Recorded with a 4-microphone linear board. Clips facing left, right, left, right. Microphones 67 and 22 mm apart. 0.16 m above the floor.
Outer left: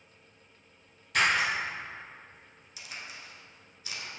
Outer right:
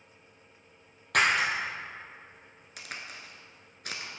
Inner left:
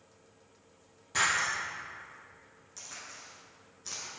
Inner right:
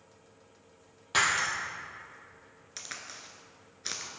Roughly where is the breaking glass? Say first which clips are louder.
Outer right 1 dB, inner right 2 dB; right.